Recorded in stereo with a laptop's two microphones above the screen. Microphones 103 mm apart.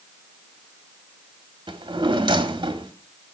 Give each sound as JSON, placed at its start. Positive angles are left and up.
{"t": 1.7, "sound": "a drawer", "side_deg": -50, "distance_m": 1.2}